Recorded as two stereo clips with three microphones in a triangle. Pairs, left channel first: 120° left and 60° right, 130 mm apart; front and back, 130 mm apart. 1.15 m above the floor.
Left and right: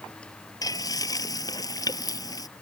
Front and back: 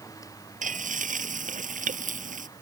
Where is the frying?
Straight behind.